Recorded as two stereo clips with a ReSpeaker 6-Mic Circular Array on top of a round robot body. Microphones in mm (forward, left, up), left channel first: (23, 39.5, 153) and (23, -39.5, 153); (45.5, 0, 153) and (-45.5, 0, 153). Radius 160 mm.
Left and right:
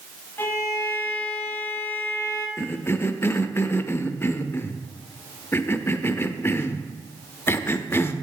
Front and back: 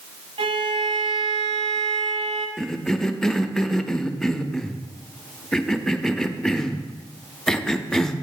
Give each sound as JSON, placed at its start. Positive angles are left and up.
{"t": 0.4, "sound": "a violin", "azimuth_deg": 155, "distance_m": 0.8}
{"t": 2.6, "sound": "a cough", "azimuth_deg": 80, "distance_m": 0.8}